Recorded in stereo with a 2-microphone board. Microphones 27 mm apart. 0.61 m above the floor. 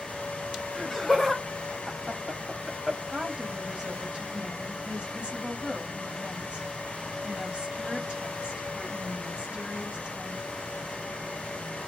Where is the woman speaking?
40° right (ahead or behind), 1.3 m.